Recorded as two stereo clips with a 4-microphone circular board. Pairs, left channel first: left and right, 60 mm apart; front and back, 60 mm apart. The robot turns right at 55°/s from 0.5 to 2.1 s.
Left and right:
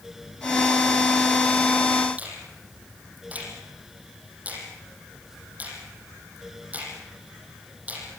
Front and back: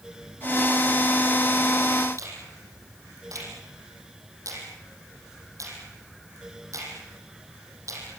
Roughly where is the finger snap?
Behind right.